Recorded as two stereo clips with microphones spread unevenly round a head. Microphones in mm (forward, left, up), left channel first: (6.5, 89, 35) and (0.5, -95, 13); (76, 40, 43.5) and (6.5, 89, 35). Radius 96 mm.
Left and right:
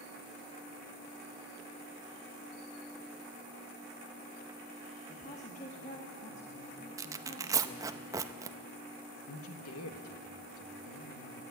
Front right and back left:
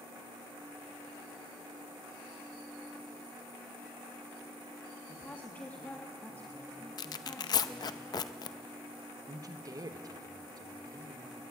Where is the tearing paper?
15° right, 0.6 m.